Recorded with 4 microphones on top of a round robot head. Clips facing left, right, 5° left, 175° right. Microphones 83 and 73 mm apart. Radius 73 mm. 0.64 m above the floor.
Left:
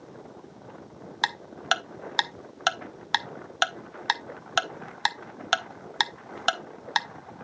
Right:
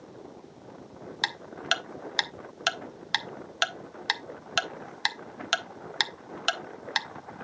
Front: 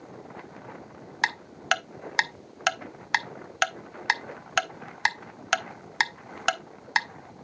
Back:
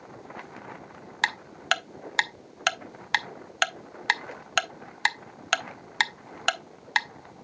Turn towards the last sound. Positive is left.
turn(degrees=85)